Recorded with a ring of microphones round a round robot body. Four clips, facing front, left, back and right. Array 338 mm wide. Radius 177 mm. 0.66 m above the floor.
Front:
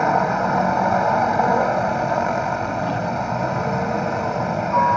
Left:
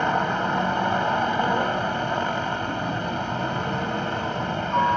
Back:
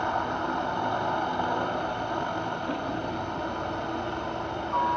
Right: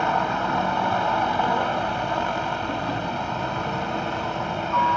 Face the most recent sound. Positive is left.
turn(degrees=15)